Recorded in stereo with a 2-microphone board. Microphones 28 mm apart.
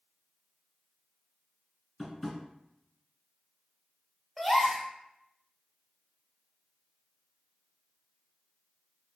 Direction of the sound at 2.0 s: 10° left (ahead or behind).